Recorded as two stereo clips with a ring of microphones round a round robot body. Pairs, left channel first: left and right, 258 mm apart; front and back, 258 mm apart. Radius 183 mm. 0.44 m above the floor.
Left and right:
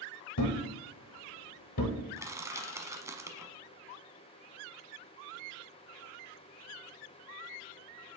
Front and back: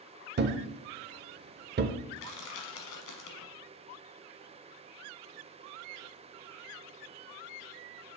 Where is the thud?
125° left, 0.7 m.